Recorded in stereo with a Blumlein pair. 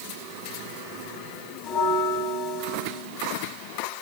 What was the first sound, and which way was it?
A bell, 35° left.